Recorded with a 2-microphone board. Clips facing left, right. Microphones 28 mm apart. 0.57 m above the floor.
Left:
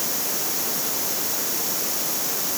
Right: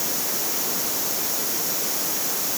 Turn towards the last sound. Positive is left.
No sound to turn to.